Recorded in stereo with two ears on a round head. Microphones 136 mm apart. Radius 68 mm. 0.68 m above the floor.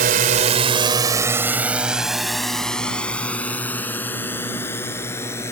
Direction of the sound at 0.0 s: 65° right (ahead or behind).